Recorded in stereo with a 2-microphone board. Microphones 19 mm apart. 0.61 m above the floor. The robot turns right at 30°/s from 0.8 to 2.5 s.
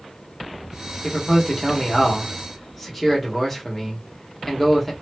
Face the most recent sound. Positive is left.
turn(degrees=170)